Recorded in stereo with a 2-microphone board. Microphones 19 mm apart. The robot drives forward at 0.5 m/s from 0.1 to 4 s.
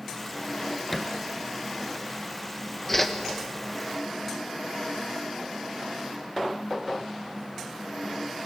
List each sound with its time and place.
0.9 s a thud: 15° left (ahead or behind), 1.9 m
2.9 s a whoosh: 15° left (ahead or behind), 1.6 m